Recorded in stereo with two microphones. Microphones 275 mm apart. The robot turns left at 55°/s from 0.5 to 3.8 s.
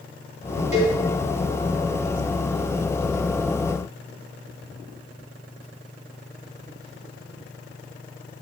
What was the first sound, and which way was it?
A cowbell, 65° right (ahead or behind).